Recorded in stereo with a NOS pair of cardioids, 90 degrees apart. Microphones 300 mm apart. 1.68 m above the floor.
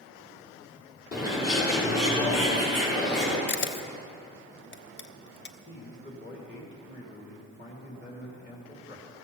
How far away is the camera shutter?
About 0.9 m.